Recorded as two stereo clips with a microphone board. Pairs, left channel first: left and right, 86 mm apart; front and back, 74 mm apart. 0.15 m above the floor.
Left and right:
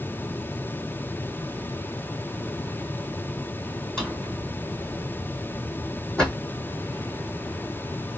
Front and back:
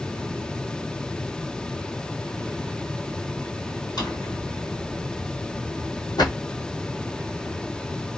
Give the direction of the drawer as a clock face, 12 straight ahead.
12 o'clock.